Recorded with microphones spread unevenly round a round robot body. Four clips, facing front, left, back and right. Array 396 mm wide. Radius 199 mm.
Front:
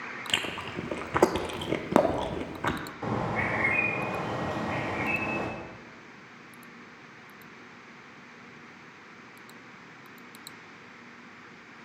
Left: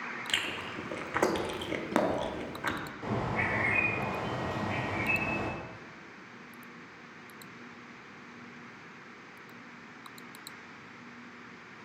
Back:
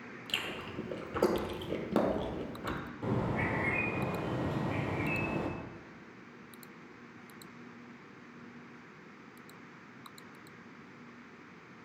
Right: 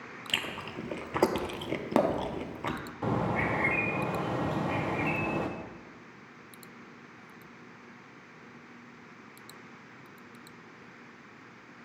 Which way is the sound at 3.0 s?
90° right.